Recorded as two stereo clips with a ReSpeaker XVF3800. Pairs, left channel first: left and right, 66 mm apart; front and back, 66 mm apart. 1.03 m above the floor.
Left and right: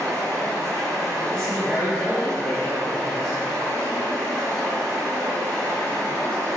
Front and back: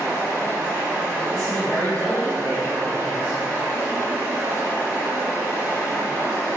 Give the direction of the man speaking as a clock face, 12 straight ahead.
6 o'clock.